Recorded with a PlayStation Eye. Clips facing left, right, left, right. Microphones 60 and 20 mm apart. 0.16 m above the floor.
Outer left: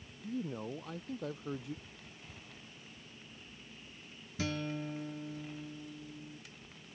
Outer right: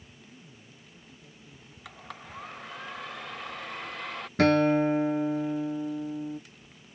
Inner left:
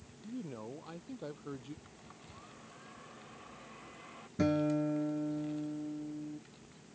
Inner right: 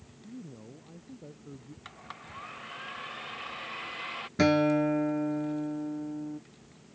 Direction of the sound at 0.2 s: 70° left (ahead or behind).